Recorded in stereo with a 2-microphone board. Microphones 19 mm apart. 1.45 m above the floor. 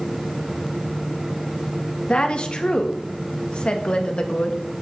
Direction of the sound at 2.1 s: 60° left (ahead or behind).